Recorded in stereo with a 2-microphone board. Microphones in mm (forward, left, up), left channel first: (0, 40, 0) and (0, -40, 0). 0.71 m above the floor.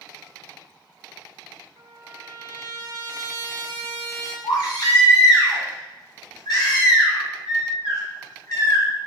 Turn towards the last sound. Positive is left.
turn(degrees=60)  # may be behind; listen again after turning